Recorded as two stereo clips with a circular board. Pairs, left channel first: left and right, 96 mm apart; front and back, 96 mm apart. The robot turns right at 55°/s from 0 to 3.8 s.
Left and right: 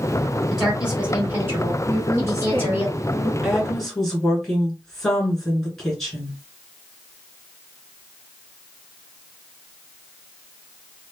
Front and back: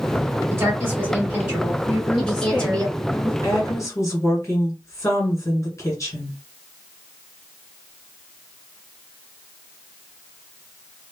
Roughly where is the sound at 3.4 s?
Ahead.